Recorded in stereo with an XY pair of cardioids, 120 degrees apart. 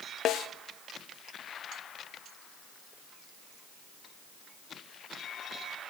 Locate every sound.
0.2 s a snare drum: 65° left, 0.6 m